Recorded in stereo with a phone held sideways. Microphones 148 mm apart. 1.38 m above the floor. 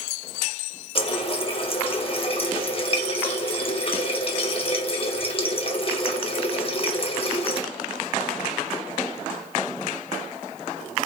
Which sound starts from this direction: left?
A running tap, at 0.9 s.